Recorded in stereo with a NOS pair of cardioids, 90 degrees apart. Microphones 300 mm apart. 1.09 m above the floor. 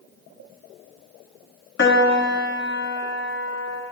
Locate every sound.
1.8 s a piano: 40° left, 1.7 m